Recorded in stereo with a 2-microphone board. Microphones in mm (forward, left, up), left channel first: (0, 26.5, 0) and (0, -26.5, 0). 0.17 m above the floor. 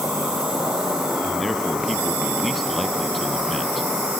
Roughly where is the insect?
Centre.